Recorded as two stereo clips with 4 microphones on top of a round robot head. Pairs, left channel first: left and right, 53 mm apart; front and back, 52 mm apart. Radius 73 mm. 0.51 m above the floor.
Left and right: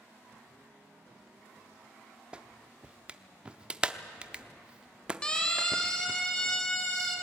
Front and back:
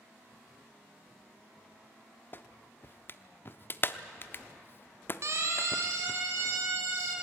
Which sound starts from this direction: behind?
A siren, at 5.2 s.